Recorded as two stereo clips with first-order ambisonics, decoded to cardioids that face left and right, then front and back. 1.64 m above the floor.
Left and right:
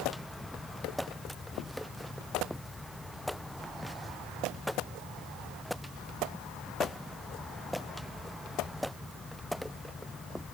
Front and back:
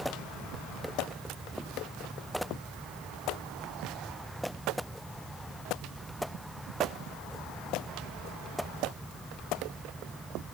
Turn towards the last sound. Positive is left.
No sound to turn to.